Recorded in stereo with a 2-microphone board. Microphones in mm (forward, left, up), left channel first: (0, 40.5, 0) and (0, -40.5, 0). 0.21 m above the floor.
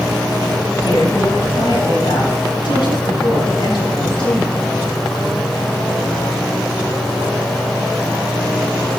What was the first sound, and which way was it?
A woman speaking, 70° left (ahead or behind).